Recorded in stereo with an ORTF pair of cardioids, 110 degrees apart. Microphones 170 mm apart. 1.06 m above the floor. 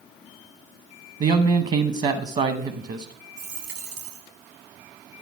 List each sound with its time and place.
1.2 s a man speaking: 45° right, 0.8 m
3.4 s a dropped coin: 70° right, 1.6 m